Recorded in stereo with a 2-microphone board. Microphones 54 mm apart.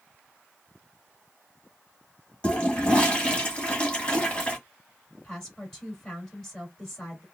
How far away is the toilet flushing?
About 1.4 m.